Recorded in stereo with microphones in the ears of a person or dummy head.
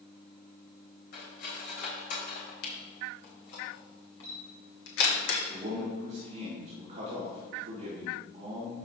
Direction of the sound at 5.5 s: 35° right (ahead or behind).